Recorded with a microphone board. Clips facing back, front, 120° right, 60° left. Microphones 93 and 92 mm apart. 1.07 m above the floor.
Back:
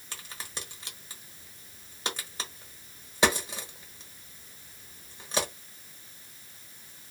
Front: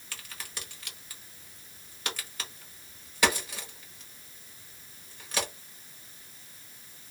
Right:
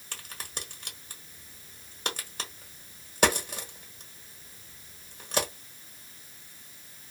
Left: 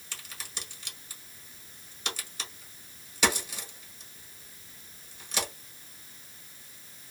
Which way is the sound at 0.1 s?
125° right.